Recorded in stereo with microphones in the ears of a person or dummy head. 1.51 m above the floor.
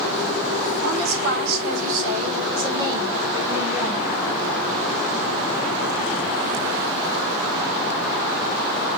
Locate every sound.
0.8 s a woman speaking: 65° right (ahead or behind), 4.5 m; by 4.0 s centre (ahead or behind), 5.5 m